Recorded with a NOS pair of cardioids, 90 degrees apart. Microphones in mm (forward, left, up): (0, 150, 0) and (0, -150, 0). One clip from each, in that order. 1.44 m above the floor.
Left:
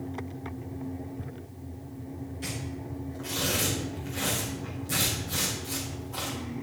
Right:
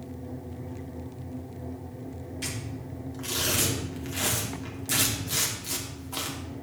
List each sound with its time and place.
2.4 s tearing paper: 65° right, 3 m